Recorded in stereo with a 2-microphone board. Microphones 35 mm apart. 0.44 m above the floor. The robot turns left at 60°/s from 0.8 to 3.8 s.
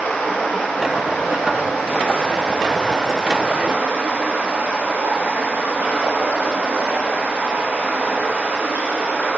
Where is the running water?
125° left, 6 m; by 9.4 s 55° right, 6 m.